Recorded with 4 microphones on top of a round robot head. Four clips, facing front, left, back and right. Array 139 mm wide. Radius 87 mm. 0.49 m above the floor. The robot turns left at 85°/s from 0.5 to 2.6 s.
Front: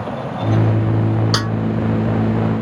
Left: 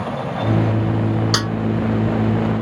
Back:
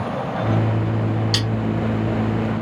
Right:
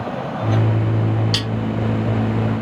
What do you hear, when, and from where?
1.3 s a snare drum: 35° left; by 1.5 s 20° left